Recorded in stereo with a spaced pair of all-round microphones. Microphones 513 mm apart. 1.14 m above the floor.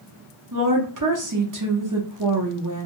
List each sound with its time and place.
0.5 s a woman speaking: 35° right (ahead or behind), 1.0 m